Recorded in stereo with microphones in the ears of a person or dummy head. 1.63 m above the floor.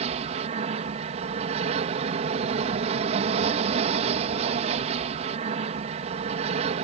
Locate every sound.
0.0 s an aircraft: 35° right (ahead or behind)